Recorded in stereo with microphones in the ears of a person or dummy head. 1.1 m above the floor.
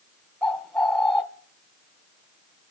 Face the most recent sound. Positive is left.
turn(degrees=10)  # may be behind; listen again after turning